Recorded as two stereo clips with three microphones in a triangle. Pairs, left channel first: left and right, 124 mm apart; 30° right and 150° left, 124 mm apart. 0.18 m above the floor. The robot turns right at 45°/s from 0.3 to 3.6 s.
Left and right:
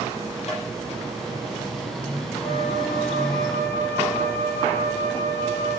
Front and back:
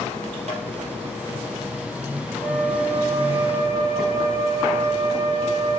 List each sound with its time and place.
0.5 s tapping: 120° left, 4.5 m; by 0.7 s 125° left, 4.5 m
2.4 s a flute: 120° right, 4.5 m; by 5.8 s 65° right, 4.5 m